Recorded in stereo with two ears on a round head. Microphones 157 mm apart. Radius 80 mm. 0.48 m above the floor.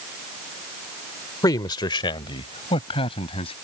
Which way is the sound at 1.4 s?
20° left (ahead or behind).